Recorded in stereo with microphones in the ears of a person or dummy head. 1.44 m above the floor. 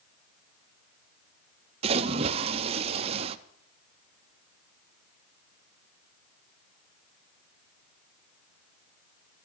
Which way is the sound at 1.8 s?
35° right (ahead or behind).